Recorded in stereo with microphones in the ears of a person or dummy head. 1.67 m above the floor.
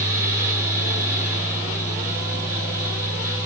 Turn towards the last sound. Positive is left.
turn(degrees=-15)  # may be behind; listen again after turning